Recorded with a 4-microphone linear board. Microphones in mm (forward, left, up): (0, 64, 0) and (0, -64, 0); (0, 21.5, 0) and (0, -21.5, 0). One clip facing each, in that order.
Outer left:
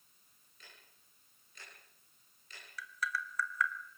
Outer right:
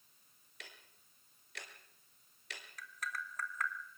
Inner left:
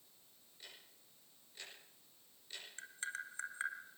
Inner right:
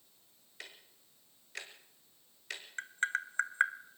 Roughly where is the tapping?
Right.